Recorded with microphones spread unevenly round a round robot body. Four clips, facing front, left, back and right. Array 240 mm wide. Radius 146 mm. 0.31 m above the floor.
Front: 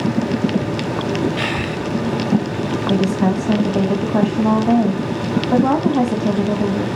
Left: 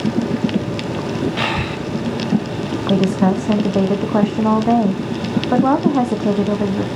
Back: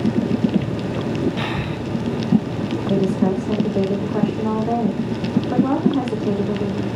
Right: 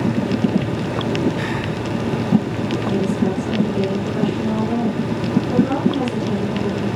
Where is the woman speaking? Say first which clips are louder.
Left 6 dB, front 1 dB; 50° left, 2 m.